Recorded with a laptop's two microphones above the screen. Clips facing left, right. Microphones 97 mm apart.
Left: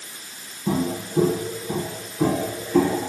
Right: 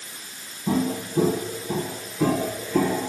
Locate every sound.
0.7 s footsteps: 25° left (ahead or behind), 4 m; by 3.1 s 20° left (ahead or behind), 5 m